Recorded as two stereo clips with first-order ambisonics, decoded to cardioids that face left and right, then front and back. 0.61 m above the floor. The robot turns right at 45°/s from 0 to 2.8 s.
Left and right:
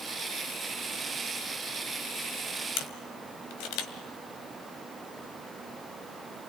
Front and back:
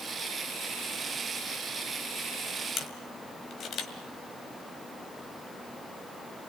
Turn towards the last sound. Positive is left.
turn(degrees=60)